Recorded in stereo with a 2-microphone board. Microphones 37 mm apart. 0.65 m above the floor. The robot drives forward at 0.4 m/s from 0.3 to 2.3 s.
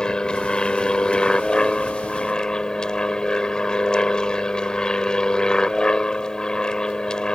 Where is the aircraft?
20° left (ahead or behind).